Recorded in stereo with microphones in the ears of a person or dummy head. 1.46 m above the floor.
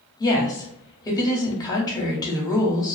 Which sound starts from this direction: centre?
A woman speaking, at 0.2 s.